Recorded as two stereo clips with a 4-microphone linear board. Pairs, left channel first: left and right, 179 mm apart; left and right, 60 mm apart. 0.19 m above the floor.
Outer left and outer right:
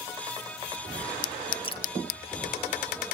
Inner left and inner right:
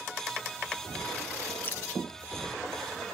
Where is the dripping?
30° left (ahead or behind), 1.0 m.